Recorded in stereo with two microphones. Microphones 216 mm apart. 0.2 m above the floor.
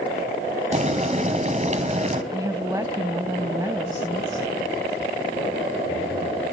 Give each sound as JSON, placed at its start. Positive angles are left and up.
{"t": 0.7, "sound": "boiling", "side_deg": -35, "distance_m": 1.8}
{"t": 2.3, "sound": "a woman speaking", "side_deg": -15, "distance_m": 1.1}